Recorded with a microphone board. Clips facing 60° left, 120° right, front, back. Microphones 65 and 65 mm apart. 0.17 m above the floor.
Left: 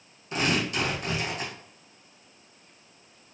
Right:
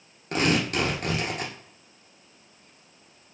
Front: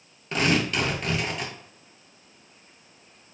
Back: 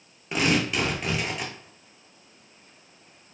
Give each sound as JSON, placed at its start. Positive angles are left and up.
{"t": 0.3, "sound": "tearing paper", "azimuth_deg": -95, "distance_m": 1.0}